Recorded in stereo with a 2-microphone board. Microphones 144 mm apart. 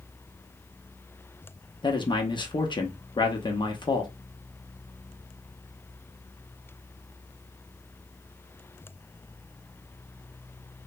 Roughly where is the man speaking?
Left.